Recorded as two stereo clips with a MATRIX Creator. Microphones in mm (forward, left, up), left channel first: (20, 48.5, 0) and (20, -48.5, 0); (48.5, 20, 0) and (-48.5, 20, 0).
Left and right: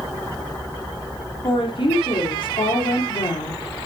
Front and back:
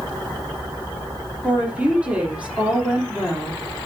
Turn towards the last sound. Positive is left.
turn(degrees=105)